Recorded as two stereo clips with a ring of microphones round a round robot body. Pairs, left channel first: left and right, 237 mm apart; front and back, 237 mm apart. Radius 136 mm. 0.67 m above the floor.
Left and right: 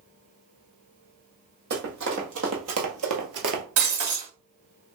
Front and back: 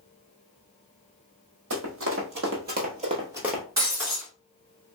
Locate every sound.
1.7 s running footsteps: 140° right, 1.9 m; by 3.6 s 85° right, 0.9 m
3.8 s breaking glass: 100° right, 2.5 m